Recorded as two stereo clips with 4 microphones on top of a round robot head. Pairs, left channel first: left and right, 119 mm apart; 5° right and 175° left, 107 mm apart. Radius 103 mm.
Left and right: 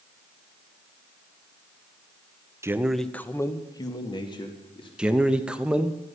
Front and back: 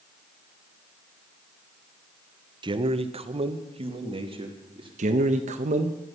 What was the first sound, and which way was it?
A man speaking, 155° right.